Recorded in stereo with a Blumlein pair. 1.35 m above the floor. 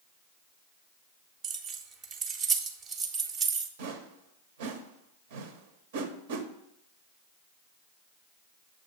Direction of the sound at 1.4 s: 30° right.